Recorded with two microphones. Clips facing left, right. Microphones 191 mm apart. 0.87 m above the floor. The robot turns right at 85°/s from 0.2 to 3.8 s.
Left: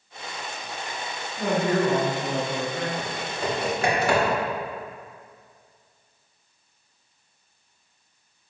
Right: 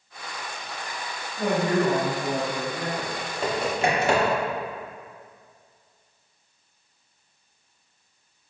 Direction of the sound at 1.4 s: 160° right.